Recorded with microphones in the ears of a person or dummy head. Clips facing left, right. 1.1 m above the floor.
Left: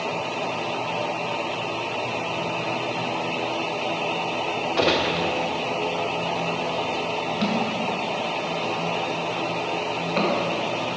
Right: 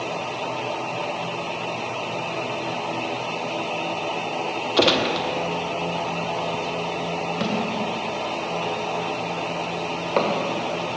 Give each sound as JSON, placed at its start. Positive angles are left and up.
{"t": 4.8, "sound": "a gunshot", "side_deg": -40, "distance_m": 0.7}
{"t": 7.4, "sound": "a thud", "side_deg": -45, "distance_m": 1.1}